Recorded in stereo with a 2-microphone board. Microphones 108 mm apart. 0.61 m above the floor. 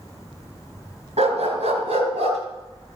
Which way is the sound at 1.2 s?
60° right (ahead or behind).